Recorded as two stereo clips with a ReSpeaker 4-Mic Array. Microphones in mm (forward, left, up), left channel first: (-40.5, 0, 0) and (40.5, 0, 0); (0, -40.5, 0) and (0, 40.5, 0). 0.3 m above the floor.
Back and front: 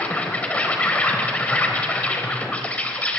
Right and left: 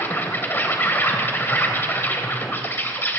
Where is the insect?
125° right, 1.2 m.